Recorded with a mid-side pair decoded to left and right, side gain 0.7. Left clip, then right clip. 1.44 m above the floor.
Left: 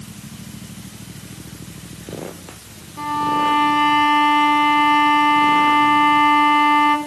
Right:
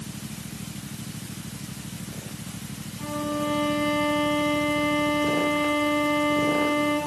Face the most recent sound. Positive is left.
turn(degrees=65)